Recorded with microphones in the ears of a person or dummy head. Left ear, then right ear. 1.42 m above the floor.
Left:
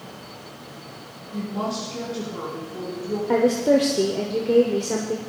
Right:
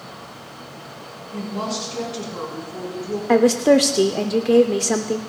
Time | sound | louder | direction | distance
1.3 | a woman speaking | right 1 dB | 20° right (ahead or behind) | 4.5 m
3.3 | a woman speaking | right 4 dB | 45° right (ahead or behind) | 0.6 m